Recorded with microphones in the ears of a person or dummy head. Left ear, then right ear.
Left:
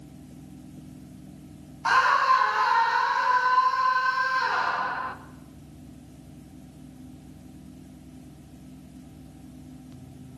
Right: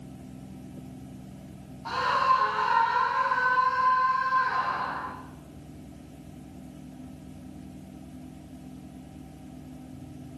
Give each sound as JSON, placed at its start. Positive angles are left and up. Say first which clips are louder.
{"t": 1.9, "sound": "a scream", "louder": "left 4 dB", "side_deg": 55, "distance_m": 1.0}